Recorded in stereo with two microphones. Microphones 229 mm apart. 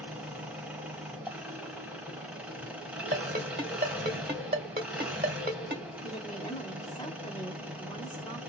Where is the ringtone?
40° right (ahead or behind), 1.1 m.